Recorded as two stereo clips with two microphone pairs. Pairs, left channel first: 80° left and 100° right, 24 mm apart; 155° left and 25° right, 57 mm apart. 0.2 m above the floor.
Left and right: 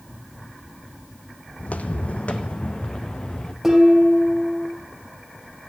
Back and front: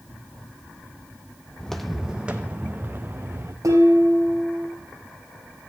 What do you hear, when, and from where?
1.6 s footsteps: 80° left, 0.5 m; by 3.5 s 25° left, 1.4 m
3.6 s dishes clattering: 15° right, 3 m